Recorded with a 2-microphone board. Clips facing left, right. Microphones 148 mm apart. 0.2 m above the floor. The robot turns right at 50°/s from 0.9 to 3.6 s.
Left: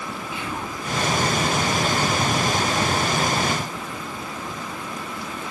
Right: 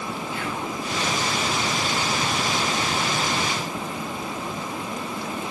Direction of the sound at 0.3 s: 20° left (ahead or behind).